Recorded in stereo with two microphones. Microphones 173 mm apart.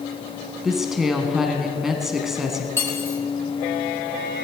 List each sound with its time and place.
0.6 s a woman speaking: centre (ahead or behind), 1.1 m
2.8 s cutlery clinking: 15° left (ahead or behind), 3 m